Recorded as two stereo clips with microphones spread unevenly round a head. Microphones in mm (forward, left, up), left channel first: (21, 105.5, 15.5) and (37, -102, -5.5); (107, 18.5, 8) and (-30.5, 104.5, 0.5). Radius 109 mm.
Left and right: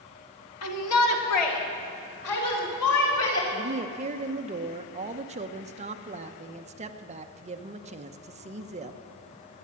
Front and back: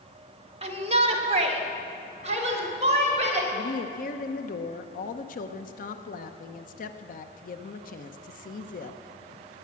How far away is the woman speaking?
About 0.9 m.